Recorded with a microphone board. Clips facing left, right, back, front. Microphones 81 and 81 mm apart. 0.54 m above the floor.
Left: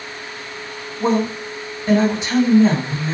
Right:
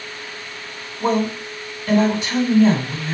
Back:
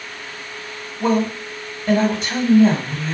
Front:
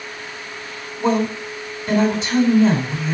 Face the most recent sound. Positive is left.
turn(degrees=155)